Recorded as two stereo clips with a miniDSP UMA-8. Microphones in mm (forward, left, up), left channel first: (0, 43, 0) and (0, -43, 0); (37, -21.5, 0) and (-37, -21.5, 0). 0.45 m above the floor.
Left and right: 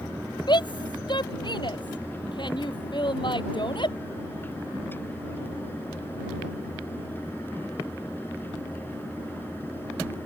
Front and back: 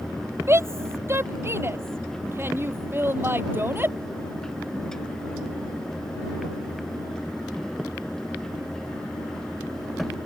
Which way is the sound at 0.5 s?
125° left.